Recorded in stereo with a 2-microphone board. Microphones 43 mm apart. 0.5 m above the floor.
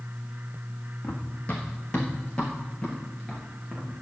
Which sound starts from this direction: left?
Running footsteps, at 1.0 s.